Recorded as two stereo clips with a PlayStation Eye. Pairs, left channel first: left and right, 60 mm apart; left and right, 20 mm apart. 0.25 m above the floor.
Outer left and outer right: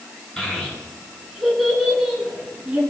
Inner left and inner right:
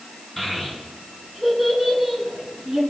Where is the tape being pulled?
I don't hear tape being pulled.